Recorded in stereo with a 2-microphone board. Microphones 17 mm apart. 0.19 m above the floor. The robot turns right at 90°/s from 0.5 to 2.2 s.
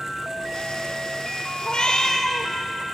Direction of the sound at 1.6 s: 105° left.